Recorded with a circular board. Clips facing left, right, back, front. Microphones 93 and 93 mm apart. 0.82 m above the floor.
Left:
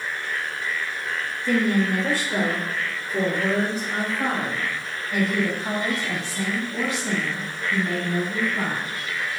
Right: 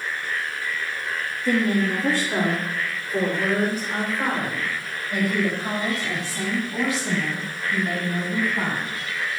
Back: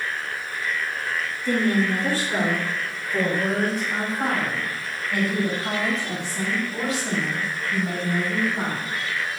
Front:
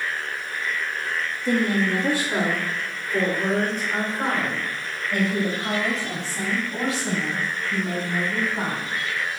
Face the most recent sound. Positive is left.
turn(degrees=-60)